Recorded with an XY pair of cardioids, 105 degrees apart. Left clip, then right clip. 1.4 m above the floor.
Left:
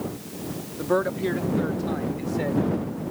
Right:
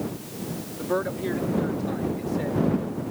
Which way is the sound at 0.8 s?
20° left.